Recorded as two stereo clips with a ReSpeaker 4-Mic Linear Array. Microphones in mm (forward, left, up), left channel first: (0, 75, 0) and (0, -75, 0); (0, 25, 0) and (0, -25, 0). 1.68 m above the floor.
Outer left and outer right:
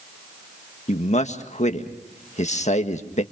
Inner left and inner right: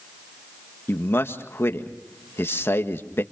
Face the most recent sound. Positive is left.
turn(degrees=50)  # may be behind; listen again after turning